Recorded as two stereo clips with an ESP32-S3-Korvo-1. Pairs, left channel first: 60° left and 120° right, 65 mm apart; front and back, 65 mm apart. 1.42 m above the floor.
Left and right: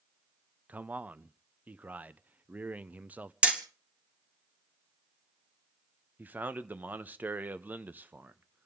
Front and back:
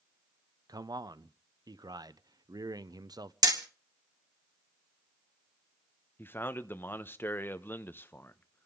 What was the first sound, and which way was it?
A man speaking, 175° left.